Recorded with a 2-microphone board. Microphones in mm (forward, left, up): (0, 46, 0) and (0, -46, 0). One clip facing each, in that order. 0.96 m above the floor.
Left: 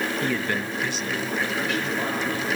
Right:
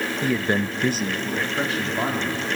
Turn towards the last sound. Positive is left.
turn(degrees=-35)  # may be behind; listen again after turning